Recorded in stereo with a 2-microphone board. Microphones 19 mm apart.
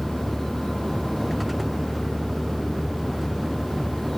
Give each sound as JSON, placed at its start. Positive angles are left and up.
{"t": 0.0, "sound": "a vehicle", "side_deg": -10}